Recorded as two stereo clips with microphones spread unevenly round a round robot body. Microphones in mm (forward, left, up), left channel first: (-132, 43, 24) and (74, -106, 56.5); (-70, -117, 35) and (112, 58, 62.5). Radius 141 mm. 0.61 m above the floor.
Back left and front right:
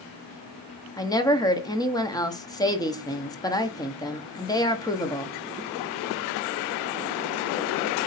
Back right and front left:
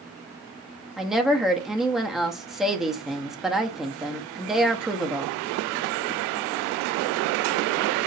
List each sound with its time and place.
1.0 s a woman speaking: 145° left, 0.7 m